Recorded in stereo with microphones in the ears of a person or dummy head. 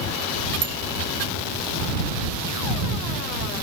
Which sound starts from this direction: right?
A bicycle bell, at 0.6 s.